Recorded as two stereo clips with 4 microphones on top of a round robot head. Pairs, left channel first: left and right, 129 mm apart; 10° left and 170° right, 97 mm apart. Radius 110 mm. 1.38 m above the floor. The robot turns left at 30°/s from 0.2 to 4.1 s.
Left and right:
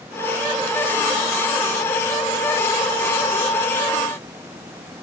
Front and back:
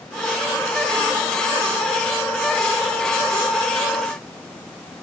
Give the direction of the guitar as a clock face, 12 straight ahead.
No guitar in this recording.